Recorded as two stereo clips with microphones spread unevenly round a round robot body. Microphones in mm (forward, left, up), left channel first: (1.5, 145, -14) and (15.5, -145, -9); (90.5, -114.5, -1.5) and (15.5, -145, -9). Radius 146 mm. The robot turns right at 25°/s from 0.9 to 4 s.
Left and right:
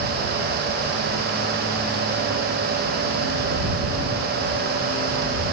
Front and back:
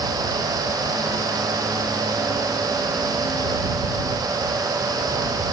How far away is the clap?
No clap in this recording.